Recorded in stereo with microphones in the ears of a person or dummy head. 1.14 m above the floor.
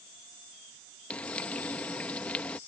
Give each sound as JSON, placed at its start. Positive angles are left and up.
{"t": 1.1, "sound": "frying", "side_deg": 5}